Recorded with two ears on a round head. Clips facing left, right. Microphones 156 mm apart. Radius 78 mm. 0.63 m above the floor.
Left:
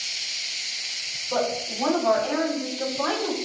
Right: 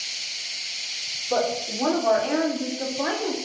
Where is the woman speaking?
45° right (ahead or behind), 2.5 m; by 3.4 s 5° right (ahead or behind), 1.2 m.